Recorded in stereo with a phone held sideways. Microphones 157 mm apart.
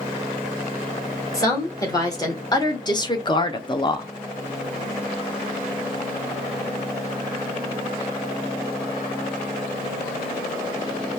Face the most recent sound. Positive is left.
turn(degrees=25)  # may be behind; listen again after turning